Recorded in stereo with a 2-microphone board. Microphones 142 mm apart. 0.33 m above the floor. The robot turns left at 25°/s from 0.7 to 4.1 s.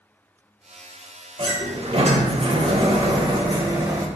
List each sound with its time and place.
1.4 s a sliding door: 75° right, 0.6 m; by 4.1 s 145° right, 0.6 m